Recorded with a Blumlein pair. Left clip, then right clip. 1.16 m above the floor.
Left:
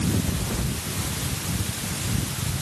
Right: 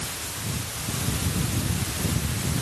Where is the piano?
No piano in this recording.